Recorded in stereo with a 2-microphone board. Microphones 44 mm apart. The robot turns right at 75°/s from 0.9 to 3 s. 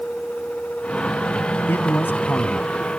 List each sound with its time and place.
1.7 s a man speaking: 80° left; by 2.7 s 155° left